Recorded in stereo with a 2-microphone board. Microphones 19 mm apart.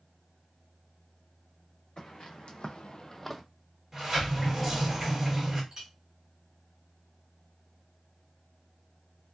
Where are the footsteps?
55° left (ahead or behind), 1.3 m; by 3.4 s centre (ahead or behind), 0.7 m.